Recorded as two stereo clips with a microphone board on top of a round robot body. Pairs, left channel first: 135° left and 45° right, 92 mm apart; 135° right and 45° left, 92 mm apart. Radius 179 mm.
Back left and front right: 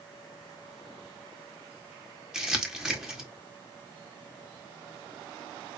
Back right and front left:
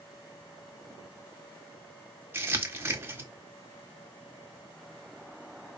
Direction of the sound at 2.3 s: 30° left.